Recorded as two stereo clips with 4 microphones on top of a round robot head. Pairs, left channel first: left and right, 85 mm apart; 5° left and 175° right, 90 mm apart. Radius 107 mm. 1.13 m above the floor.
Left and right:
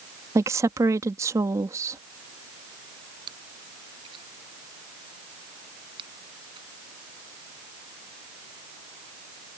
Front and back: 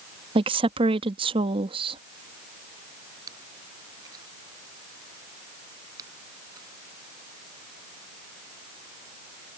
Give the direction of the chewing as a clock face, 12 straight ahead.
4 o'clock.